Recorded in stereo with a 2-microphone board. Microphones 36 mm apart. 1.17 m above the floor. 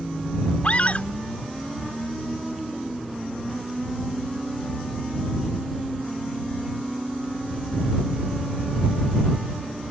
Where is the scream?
45° left (ahead or behind).